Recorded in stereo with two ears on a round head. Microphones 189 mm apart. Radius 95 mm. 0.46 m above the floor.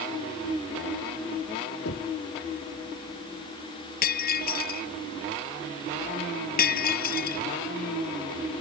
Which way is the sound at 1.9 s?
50° left (ahead or behind).